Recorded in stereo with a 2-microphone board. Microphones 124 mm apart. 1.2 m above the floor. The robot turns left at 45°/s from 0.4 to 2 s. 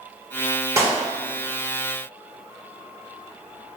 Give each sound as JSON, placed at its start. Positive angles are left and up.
{"t": 0.8, "sound": "a clap", "side_deg": -20, "distance_m": 1.2}